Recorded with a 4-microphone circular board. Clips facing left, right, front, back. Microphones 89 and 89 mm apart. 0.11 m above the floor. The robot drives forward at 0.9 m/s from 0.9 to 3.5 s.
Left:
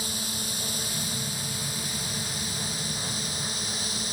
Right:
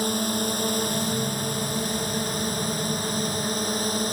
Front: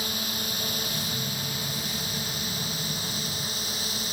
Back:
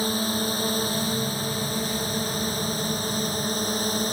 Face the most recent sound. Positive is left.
turn(degrees=-130)